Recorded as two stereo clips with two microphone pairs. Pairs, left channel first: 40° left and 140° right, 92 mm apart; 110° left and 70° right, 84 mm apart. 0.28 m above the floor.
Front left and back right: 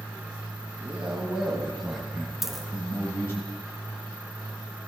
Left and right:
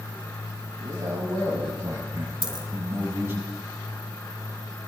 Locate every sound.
0.8 s a man speaking: 70° right, 1.8 m; by 3.4 s 10° right, 2 m
2.4 s a dropped coin: 50° right, 0.8 m